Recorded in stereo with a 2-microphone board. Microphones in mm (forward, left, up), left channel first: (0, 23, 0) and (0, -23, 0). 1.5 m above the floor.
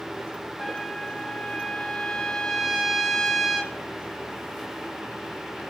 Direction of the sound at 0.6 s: 10° left (ahead or behind).